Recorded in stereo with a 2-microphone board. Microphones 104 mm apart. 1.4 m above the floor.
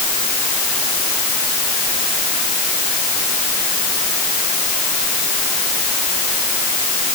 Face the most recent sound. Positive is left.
No sound to turn to.